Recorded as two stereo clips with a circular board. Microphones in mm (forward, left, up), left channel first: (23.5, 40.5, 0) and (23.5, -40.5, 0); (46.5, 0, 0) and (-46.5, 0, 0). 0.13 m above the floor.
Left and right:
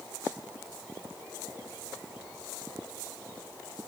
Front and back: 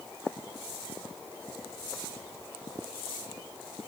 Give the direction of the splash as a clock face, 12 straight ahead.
No splash in this recording.